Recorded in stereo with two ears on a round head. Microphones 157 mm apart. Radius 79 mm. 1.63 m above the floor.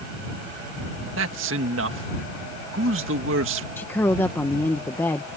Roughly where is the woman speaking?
Centre.